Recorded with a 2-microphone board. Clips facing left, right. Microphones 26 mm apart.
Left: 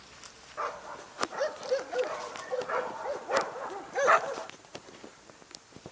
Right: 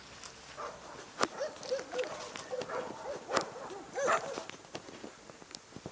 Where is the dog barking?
35° left (ahead or behind).